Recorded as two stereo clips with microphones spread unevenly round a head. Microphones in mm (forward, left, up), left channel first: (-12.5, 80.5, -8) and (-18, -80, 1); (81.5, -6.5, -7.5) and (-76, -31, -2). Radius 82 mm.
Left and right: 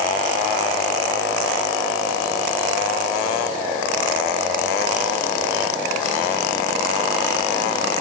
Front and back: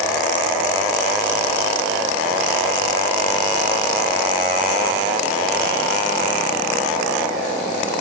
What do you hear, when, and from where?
Only background noise.